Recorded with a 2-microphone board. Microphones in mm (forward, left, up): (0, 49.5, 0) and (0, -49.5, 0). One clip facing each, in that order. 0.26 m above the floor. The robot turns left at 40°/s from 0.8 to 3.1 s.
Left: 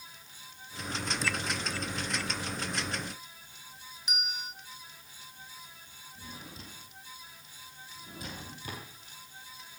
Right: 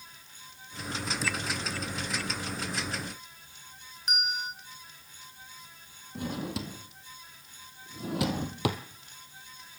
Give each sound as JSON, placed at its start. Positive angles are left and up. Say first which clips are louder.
{"t": 4.1, "sound": "a bell", "louder": "right 5 dB", "side_deg": -45, "distance_m": 3.5}
{"t": 6.2, "sound": "a drawer", "louder": "right 14 dB", "side_deg": -85, "distance_m": 2.0}